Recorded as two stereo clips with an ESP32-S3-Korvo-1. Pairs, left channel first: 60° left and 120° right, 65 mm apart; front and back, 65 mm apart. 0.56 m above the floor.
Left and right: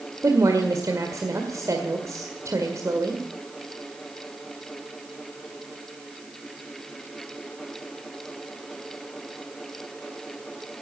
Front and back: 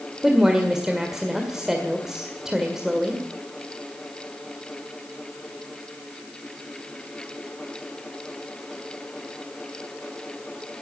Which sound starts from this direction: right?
A woman speaking, at 0.2 s.